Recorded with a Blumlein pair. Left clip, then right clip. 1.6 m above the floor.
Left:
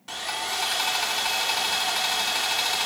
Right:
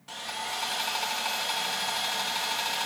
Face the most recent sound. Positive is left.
turn(degrees=15)